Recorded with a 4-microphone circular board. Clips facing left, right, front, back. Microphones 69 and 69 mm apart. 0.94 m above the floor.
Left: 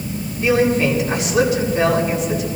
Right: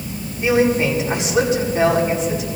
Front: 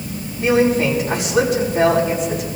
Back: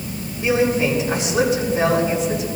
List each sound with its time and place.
0.4 s a man speaking: 30° right, 5 m